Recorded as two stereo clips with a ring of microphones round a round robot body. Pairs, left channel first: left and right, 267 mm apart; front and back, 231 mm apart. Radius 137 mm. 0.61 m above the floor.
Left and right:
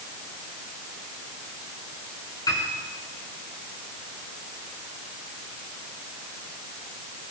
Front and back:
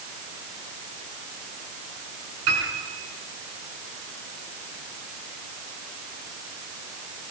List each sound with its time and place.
2.5 s a piano: 165° left, 8 m